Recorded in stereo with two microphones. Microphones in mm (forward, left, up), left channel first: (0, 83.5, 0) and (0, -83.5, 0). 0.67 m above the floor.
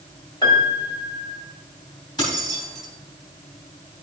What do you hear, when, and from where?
0.4 s a piano: 25° left (ahead or behind), 1.9 m
2.2 s keys jangling: 25° left (ahead or behind), 3.5 m